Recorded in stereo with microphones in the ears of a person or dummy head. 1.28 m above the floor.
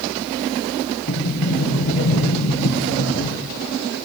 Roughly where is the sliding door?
Left.